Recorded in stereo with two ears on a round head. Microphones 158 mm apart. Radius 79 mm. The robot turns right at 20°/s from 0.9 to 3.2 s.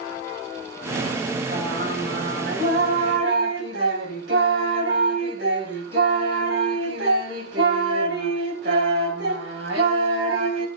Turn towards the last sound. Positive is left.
turn(degrees=-110)